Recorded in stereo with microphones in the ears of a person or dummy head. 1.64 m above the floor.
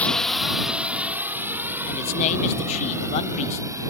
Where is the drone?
5° left (ahead or behind); by 3.9 s 20° right (ahead or behind).